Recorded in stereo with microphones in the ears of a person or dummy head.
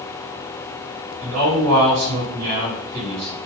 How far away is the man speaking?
About 1.9 m.